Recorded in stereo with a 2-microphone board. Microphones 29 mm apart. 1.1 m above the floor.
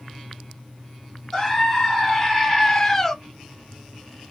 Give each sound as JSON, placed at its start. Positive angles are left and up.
{"t": 1.3, "sound": "a scream", "side_deg": 10, "distance_m": 1.6}